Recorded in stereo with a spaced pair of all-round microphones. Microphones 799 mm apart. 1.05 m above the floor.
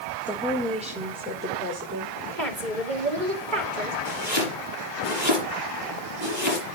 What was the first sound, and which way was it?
A woman speaking, centre (ahead or behind).